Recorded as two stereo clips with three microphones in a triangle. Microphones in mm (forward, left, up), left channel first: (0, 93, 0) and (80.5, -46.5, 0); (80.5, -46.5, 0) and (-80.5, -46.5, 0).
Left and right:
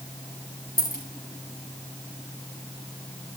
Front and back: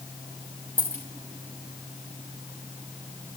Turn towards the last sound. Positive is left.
turn(degrees=140)